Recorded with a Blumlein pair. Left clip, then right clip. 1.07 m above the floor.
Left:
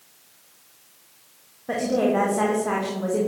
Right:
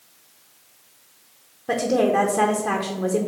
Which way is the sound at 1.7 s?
10° right.